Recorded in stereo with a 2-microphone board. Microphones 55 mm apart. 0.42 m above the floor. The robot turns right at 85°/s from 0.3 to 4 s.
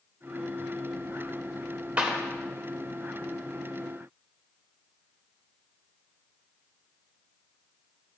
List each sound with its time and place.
2.0 s a clap: 20° right (ahead or behind), 1.4 m; by 2.2 s 10° right (ahead or behind), 1.4 m